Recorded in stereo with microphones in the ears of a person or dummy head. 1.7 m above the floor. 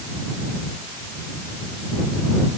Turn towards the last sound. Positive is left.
No sound to turn to.